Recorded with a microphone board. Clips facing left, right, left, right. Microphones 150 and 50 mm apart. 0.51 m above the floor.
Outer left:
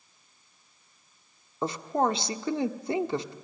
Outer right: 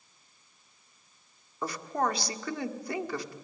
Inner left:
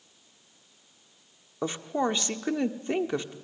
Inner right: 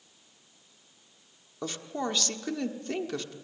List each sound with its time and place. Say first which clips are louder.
1.6 s a woman speaking: outer left 4 dB, inner left 5 dB; 25° left (ahead or behind), 1.3 m